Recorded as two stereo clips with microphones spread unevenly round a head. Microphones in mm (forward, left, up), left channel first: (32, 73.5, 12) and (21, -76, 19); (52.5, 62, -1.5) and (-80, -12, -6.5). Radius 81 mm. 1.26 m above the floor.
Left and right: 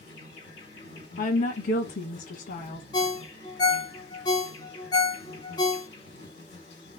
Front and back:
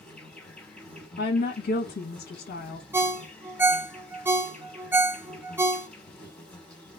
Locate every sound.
0.0 s an insect: 115° left, 2 m
1.2 s a woman speaking: 60° left, 1.5 m
2.9 s a ringtone: 140° left, 0.8 m